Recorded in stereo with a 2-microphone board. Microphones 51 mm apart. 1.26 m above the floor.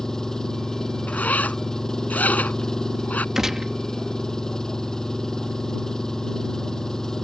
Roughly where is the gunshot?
Centre.